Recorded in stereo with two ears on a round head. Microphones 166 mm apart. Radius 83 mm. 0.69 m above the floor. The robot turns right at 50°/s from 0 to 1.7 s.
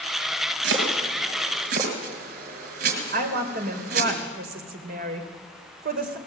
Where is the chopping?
70° right (ahead or behind), 5.5 m; by 4.1 s 55° right (ahead or behind), 5.5 m.